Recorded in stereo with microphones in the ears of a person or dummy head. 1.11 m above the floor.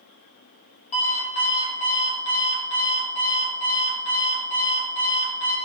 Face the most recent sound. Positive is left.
turn(degrees=35)  # may be behind; listen again after turning